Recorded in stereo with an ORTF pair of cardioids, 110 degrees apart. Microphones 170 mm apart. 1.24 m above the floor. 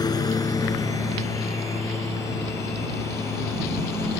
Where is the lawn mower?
25° left; by 4.2 s 15° left.